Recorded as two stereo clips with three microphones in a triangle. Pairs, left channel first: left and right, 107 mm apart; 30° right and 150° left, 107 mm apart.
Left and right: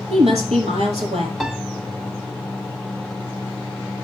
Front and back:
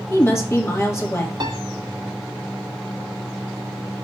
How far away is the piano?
About 1.0 m.